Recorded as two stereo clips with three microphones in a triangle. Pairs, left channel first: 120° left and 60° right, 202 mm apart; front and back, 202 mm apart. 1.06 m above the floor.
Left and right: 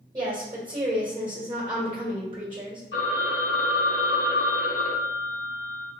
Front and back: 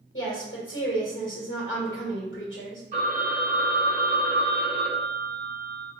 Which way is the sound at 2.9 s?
130° left.